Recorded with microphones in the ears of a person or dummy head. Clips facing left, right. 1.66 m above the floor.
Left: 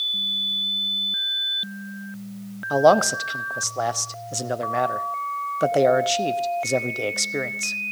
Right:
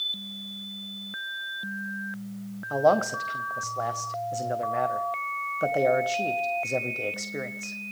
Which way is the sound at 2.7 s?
80° left.